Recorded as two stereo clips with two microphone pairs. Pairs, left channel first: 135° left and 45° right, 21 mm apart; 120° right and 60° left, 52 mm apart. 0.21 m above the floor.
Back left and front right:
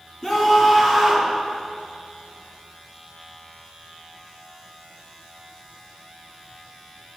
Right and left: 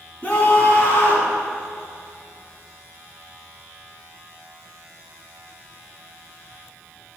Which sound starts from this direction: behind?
A scream, at 0.2 s.